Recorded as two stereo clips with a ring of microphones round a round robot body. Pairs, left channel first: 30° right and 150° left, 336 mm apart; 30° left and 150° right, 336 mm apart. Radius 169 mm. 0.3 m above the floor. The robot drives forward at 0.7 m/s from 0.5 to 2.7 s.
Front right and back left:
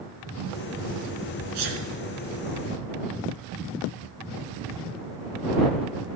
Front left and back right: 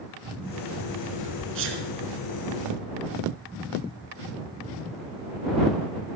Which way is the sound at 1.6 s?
155° left.